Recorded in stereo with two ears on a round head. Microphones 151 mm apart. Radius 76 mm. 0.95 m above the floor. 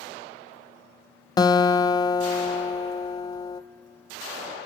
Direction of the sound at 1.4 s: 25° left (ahead or behind).